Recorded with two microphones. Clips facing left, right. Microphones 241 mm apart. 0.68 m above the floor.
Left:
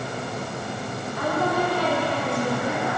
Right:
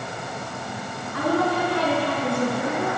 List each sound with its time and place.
1.1 s a woman speaking: 75° right (ahead or behind), 9 m; by 2.9 s 65° right (ahead or behind), 8.5 m